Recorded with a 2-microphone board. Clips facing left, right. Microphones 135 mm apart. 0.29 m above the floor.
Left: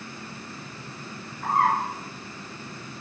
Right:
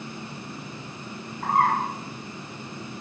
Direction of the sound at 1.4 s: 60° right (ahead or behind).